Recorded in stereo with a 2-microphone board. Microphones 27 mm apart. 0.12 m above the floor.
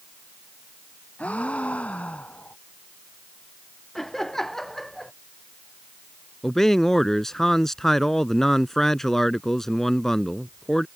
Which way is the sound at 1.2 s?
55° left (ahead or behind).